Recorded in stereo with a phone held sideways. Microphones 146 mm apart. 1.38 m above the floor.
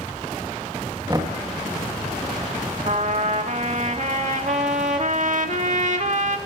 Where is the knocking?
30° right (ahead or behind), 1.9 m.